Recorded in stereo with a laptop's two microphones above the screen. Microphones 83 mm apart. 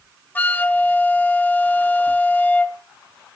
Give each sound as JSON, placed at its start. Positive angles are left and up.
{"t": 0.3, "sound": "a flute", "side_deg": 20, "distance_m": 0.6}